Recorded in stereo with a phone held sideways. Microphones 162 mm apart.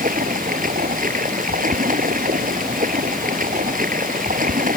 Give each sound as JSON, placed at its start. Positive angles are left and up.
{"t": 0.0, "sound": "running water", "side_deg": -60}